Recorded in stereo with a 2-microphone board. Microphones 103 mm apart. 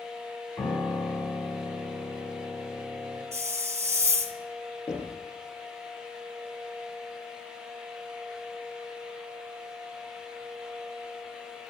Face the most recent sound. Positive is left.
turn(degrees=25)  # may be behind; listen again after turning